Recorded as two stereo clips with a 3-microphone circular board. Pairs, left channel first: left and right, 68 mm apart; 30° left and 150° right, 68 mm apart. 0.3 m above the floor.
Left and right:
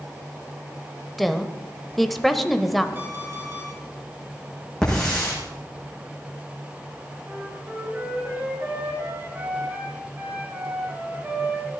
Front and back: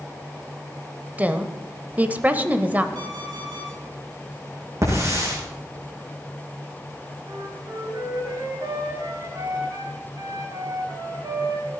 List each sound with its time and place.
1.2 s a woman speaking: straight behind, 1.0 m
3.0 s an alarm clock: 150° right, 6 m
4.8 s a hiss: 170° left, 7.5 m
7.3 s a flute: 150° right, 3.5 m